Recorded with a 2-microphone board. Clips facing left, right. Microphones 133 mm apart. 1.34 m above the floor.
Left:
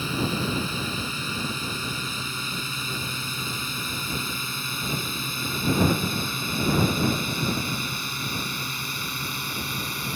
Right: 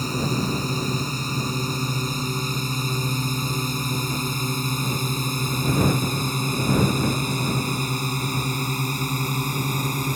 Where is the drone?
40° right (ahead or behind); by 10.2 s 45° right (ahead or behind).